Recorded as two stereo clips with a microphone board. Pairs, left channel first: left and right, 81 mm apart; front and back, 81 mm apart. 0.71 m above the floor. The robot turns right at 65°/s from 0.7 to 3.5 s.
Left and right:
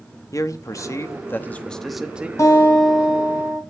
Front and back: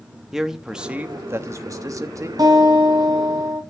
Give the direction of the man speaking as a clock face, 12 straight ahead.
9 o'clock.